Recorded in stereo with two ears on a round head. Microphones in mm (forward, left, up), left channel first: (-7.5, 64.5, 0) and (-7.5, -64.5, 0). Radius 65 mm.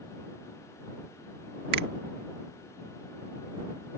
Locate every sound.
1.7 s a finger snap: 80° right